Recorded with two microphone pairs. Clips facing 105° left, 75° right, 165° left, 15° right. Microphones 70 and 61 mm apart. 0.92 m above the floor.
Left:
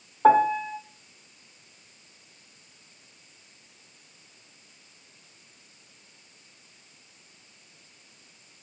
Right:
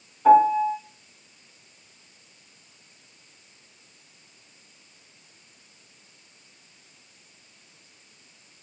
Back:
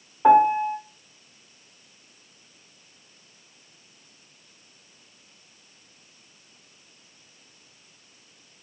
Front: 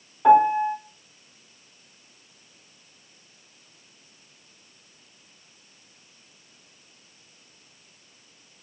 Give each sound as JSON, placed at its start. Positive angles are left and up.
{"t": 0.2, "sound": "a piano", "azimuth_deg": 100, "distance_m": 2.0}